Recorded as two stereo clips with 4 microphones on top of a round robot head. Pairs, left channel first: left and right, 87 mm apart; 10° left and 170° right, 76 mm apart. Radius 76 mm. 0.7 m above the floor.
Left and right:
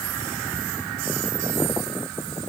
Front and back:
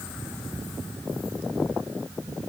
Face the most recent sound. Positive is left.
No sound to turn to.